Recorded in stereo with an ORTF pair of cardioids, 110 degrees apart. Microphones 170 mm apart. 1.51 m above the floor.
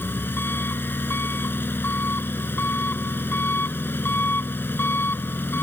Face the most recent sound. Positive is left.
turn(degrees=10)